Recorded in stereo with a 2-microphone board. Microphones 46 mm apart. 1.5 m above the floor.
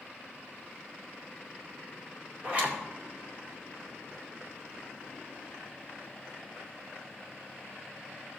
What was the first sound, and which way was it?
A zipper, 30° right (ahead or behind).